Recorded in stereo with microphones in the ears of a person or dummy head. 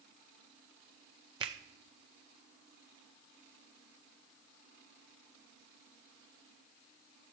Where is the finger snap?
20° right (ahead or behind), 0.6 m.